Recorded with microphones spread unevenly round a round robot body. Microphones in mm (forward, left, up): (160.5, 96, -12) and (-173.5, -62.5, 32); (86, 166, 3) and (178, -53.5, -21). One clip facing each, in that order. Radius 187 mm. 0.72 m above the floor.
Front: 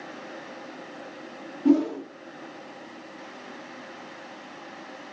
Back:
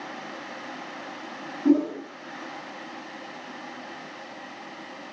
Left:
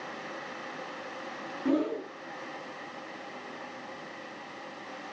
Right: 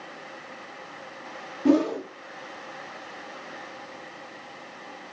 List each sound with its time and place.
1.6 s a whoosh: 50° right, 1.1 m